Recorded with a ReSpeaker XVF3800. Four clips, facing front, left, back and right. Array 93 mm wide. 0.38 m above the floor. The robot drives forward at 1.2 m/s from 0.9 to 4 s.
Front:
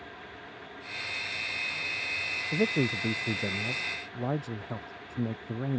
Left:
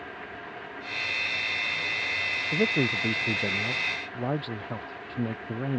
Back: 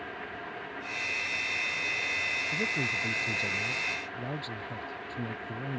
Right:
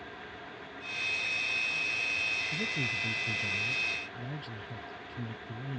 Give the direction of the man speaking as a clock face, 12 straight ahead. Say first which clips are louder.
Left 9 dB, front 8 dB; 10 o'clock.